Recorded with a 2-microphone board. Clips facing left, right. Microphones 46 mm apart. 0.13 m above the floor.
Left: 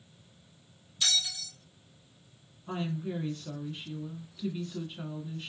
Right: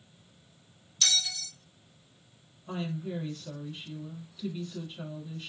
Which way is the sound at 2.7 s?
15° left (ahead or behind).